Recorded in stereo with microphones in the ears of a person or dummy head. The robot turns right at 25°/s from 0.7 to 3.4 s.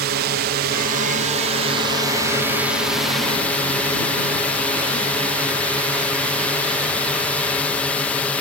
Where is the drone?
60° right; by 8.4 s 5° left.